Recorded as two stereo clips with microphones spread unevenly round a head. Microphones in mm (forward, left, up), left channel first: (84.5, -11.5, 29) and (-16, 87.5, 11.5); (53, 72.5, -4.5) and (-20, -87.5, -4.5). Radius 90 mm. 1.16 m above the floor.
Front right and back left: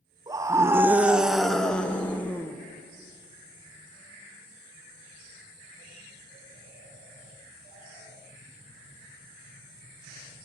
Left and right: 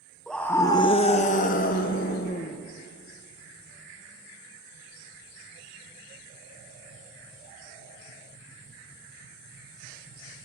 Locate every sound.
0.3 s a scream: 150° left, 0.7 m; by 2.6 s 35° left, 1.3 m